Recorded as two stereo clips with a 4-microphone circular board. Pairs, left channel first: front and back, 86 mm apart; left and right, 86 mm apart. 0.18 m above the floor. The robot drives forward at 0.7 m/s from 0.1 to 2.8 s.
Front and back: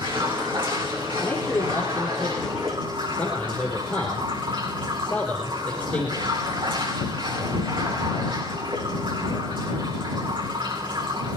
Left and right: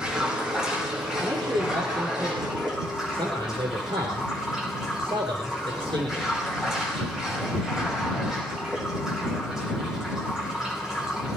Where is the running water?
170° right, 6.5 m.